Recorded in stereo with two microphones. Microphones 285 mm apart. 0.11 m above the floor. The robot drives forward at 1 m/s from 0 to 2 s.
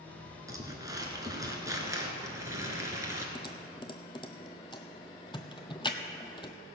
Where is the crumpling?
10° right (ahead or behind), 1.8 m.